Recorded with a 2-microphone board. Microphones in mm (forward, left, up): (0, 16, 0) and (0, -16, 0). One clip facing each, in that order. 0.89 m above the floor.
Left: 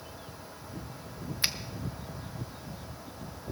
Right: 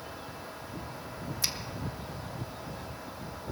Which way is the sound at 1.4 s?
30° left (ahead or behind).